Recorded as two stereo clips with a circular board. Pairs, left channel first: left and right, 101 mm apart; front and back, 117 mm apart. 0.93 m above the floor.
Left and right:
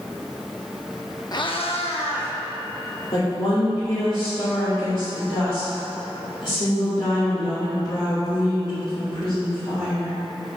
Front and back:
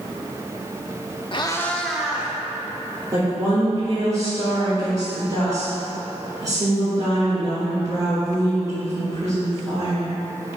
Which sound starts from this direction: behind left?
A woman speaking, at 3.1 s.